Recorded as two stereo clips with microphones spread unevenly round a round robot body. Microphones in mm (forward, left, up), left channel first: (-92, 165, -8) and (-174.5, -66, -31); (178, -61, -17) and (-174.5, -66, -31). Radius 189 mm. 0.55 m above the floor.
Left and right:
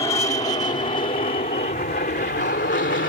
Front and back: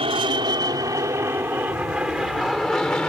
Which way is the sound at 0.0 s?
120° left.